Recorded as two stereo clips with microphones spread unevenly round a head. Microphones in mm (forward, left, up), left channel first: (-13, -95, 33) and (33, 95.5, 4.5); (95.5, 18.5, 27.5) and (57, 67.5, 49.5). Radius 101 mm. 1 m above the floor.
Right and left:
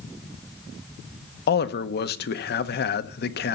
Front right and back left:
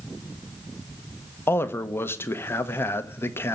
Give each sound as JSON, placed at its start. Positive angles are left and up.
{"t": 1.5, "sound": "a man speaking", "azimuth_deg": -70, "distance_m": 1.0}